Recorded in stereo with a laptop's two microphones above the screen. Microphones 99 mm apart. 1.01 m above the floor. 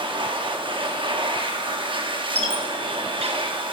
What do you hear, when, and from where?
0.0 s a machine running: 55° right (ahead or behind), 0.9 m
2.4 s a squeak: 85° right, 0.9 m